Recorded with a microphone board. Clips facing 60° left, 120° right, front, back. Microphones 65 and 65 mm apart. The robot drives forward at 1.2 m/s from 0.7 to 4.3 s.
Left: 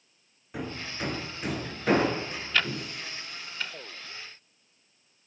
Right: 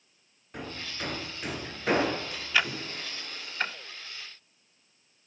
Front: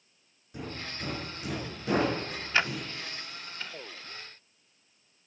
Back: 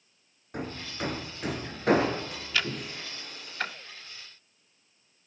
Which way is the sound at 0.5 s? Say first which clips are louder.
Left 3 dB, back 3 dB; 145° left.